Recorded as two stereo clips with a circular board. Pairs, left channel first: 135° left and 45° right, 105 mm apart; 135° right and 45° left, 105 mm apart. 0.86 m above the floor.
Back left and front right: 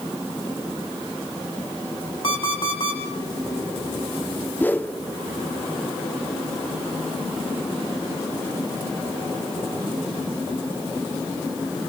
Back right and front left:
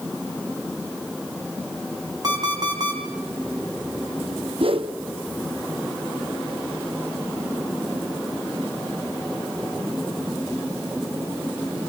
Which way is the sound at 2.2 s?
95° left.